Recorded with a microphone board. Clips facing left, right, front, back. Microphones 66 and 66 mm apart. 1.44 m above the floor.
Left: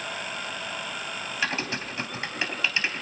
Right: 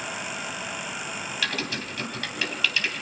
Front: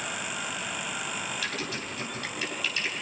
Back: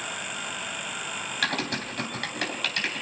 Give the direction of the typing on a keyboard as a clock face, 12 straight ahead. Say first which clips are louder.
Left 2 dB, back 5 dB; 7 o'clock.